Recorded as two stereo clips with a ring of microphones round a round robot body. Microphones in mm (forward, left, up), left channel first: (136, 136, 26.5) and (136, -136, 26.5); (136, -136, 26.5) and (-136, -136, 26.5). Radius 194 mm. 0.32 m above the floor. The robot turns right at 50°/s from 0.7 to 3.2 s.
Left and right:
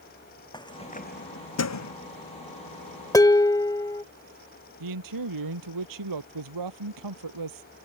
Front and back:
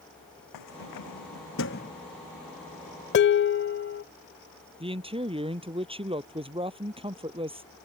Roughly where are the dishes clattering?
Ahead.